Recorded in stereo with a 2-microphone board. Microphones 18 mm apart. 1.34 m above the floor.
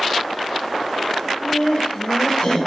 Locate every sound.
1.3 s laughter: 85° left, 1.4 m; by 2.6 s 50° left (ahead or behind), 1.6 m